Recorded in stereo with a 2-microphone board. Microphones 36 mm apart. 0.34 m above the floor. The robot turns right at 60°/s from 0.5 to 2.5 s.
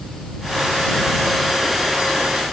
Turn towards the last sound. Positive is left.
No sound to turn to.